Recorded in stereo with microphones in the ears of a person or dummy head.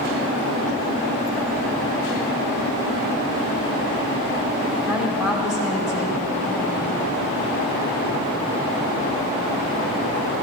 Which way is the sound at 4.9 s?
5° right (ahead or behind).